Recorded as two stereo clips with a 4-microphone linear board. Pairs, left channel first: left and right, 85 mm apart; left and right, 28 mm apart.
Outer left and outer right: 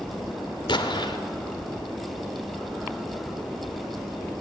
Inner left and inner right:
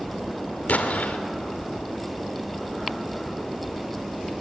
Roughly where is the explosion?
Left.